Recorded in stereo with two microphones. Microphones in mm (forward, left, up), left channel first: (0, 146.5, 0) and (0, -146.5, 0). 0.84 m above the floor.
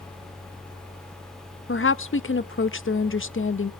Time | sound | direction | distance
1.7 | a woman speaking | 45° left (ahead or behind) | 0.7 m